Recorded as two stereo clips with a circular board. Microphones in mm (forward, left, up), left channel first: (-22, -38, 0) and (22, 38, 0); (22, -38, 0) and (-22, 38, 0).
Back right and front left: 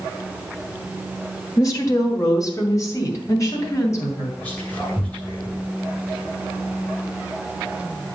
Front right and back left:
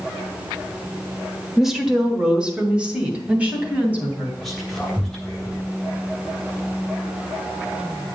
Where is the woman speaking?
155° right, 1.3 m; by 4.3 s 170° right, 3 m.